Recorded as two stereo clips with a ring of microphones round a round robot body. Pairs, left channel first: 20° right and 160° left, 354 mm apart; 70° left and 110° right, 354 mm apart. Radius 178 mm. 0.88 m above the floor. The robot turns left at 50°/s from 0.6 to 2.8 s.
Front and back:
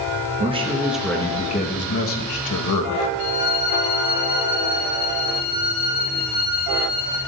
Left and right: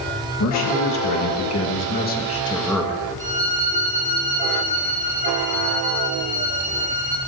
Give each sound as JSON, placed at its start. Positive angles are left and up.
{"t": 0.4, "sound": "a man speaking", "azimuth_deg": 85, "distance_m": 1.2}
{"t": 3.2, "sound": "a violin", "azimuth_deg": -45, "distance_m": 2.5}